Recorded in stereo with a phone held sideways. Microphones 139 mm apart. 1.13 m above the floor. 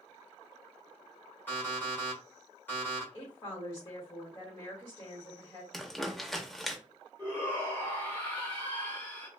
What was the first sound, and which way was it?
An alarm clock, 15° left (ahead or behind).